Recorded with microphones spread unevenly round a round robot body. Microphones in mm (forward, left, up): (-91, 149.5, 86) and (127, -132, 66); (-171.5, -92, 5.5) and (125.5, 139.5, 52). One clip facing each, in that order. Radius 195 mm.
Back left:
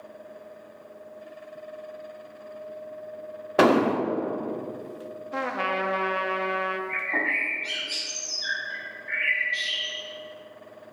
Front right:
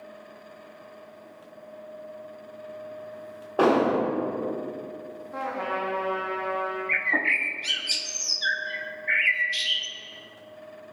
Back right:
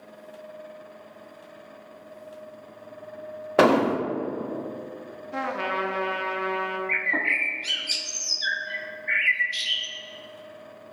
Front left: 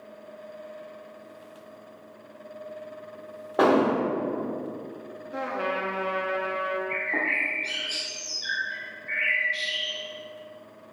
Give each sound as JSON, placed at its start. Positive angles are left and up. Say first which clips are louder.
{"t": 3.6, "sound": "an explosion", "louder": "back left 1 dB, back right 1 dB", "azimuth_deg": 180, "distance_m": 0.6}
{"t": 5.3, "sound": "a trumpet", "louder": "back left 2 dB, even", "azimuth_deg": 155, "distance_m": 0.9}
{"t": 6.9, "sound": "a bird", "louder": "even, front left 1 dB", "azimuth_deg": -90, "distance_m": 0.6}